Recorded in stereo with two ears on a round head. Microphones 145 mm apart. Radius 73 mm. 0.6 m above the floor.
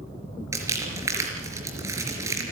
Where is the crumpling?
15° right (ahead or behind), 4 m.